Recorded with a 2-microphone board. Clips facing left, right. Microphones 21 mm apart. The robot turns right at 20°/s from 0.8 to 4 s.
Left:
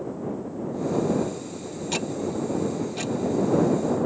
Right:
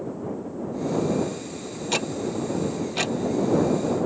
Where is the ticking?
15° right (ahead or behind); by 3.1 s 40° right (ahead or behind).